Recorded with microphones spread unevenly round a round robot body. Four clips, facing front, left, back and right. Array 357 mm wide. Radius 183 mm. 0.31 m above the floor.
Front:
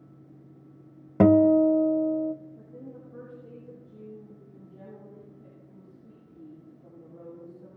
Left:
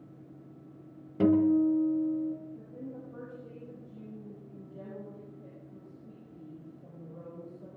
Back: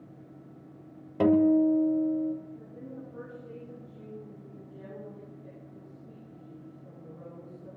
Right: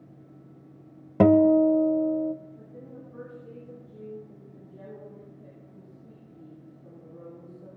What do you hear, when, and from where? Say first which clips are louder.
1.2 s a guitar: right 6 dB, front 4 dB; 60° right, 0.6 m
2.6 s a woman speaking: left 2 dB, back 1 dB; 85° left, 9 m